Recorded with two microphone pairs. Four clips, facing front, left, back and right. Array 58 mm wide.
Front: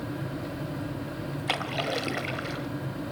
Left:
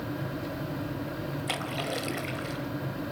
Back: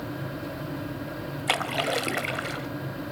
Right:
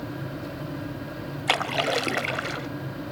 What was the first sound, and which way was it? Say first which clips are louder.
A splash: right 11 dB, back 4 dB; 115° right.